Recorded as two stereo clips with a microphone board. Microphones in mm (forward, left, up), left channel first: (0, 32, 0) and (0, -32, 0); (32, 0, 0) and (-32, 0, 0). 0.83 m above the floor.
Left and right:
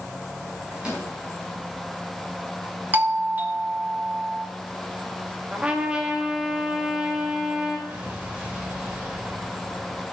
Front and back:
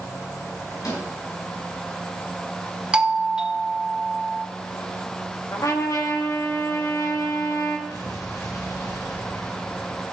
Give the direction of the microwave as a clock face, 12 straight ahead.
1 o'clock.